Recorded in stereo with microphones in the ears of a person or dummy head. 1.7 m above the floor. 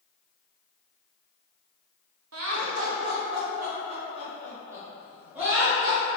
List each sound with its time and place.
2.3 s laughter: 85° right, 1.0 m; by 6.0 s centre (ahead or behind), 1.8 m